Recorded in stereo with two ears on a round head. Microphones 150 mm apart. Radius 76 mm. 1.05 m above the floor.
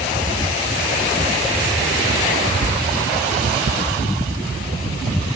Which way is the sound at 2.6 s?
20° right (ahead or behind).